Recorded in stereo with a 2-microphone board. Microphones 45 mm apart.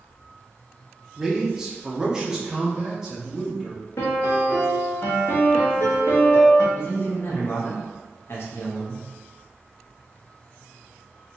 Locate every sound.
1.2 s a man speaking: 10° right (ahead or behind), 0.8 m
4.0 s a piano: 75° left (ahead or behind), 1.0 m
6.8 s a man speaking: 55° left (ahead or behind), 0.9 m